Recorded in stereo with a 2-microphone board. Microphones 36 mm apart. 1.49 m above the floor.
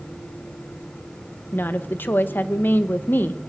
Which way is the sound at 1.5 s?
70° left (ahead or behind).